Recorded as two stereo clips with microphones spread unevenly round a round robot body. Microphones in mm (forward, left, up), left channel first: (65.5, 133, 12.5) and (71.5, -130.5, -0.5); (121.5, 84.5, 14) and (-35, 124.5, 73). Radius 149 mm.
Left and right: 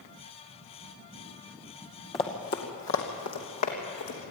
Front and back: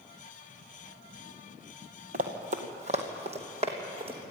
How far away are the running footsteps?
About 1.8 m.